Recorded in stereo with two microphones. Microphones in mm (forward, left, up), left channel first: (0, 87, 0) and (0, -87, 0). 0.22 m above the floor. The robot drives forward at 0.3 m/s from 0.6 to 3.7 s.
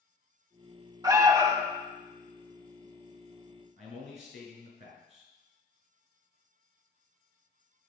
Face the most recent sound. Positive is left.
turn(degrees=-45)  # may be behind; listen again after turning